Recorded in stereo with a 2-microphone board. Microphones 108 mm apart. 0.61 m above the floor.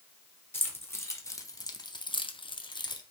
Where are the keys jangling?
20° left (ahead or behind), 1.1 m; by 3.0 s 40° left (ahead or behind), 0.6 m.